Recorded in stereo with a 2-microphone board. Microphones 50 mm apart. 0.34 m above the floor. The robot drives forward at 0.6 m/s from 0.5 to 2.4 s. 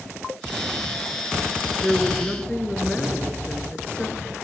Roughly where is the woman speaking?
Centre.